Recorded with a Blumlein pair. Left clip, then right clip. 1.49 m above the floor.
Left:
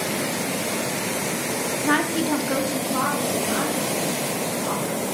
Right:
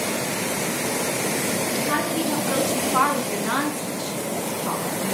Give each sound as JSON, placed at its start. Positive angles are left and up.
{"t": 1.8, "sound": "a woman speaking", "azimuth_deg": 30, "distance_m": 0.9}